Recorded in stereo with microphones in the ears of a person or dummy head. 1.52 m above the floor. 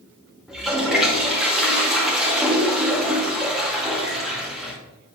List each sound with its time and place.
0.5 s a toilet flushing: centre (ahead or behind), 1.6 m